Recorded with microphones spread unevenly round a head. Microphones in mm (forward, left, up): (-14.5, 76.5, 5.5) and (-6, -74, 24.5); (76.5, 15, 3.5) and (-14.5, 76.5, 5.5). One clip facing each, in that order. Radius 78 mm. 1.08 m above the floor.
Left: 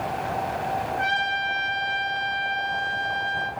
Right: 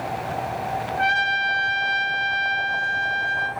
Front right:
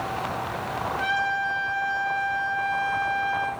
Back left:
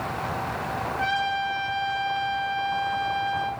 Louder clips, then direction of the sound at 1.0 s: Right 3 dB, back left 1 dB; 95° right.